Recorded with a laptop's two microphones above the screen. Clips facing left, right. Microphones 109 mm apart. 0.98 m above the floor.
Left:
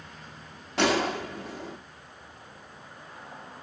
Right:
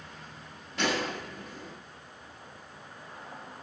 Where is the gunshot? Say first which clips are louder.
Left 6 dB; 85° left, 1.2 m.